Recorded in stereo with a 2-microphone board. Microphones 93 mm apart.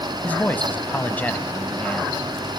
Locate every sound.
0.2 s a man speaking: 15° left (ahead or behind), 1.1 m